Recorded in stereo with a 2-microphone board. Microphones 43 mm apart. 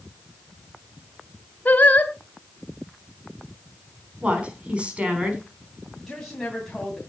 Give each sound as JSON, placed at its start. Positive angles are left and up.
{"t": 1.6, "sound": "singing", "side_deg": 35, "distance_m": 2.0}
{"t": 4.2, "sound": "a woman speaking", "side_deg": -25, "distance_m": 4.5}
{"t": 6.0, "sound": "a woman speaking", "side_deg": 10, "distance_m": 2.5}